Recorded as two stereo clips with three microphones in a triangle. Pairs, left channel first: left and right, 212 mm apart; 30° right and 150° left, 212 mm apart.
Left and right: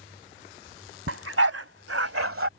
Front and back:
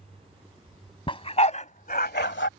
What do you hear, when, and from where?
1.1 s a dog barking: 95° right; by 2.5 s 65° right